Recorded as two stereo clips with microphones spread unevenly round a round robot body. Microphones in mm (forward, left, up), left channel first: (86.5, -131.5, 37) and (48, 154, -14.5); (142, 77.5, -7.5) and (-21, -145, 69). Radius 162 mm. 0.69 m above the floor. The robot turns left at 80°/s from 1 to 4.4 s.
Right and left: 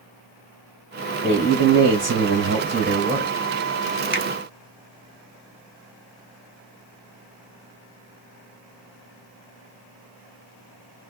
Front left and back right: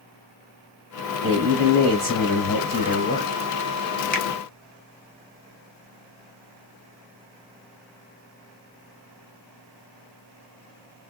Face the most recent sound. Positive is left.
turn(degrees=5)